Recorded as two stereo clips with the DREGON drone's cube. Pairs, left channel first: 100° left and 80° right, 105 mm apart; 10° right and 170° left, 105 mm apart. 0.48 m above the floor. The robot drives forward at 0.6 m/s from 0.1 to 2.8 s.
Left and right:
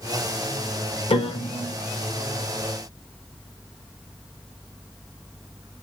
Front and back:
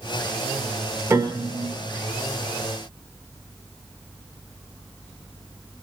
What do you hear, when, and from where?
1.1 s a piano: 110° left, 0.7 m; by 1.7 s 135° left, 0.9 m